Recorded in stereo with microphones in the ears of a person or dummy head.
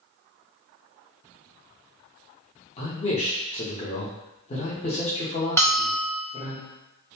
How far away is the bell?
About 0.7 m.